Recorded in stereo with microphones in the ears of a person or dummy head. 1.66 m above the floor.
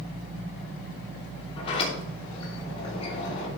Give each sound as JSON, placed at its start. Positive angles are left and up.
{"t": 1.6, "sound": "a sliding door", "side_deg": 35, "distance_m": 3.0}